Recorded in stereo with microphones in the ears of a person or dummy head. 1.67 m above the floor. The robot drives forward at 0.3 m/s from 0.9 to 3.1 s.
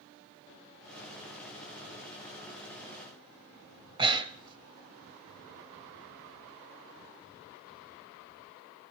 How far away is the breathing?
About 0.7 m.